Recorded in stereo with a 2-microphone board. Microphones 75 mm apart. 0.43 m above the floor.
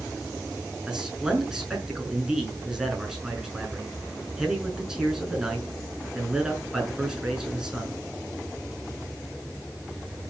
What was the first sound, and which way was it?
A man speaking, 10° right (ahead or behind).